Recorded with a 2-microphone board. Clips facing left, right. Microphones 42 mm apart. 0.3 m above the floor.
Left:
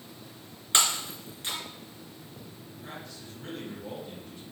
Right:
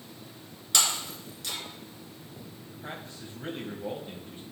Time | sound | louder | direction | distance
0.7 | breaking glass | left 2 dB | 30° left (ahead or behind) | 2.5 m
2.7 | a man speaking | right 2 dB | 40° right (ahead or behind) | 1.9 m